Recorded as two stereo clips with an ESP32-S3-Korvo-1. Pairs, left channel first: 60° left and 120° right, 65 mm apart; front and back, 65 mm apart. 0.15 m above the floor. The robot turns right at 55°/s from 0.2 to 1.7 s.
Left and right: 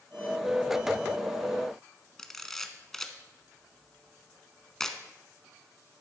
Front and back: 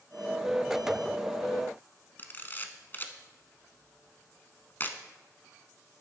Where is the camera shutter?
20° right, 0.8 m.